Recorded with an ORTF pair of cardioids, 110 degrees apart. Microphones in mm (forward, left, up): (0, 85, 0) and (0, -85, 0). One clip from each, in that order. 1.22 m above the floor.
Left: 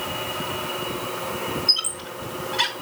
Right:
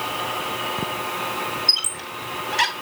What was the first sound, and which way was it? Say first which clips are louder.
A squeak: right 1 dB; 40° right.